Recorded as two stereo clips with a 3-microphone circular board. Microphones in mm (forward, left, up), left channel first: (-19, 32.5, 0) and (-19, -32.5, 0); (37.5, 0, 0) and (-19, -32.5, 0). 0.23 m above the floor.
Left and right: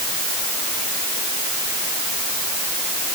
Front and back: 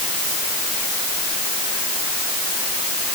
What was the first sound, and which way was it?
Only background noise.